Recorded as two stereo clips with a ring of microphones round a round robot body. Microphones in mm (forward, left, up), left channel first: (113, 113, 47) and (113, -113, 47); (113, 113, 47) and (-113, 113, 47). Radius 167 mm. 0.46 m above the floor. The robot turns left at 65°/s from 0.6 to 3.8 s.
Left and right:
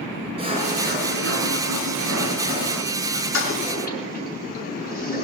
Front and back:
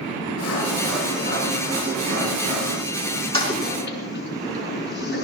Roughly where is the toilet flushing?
Ahead left.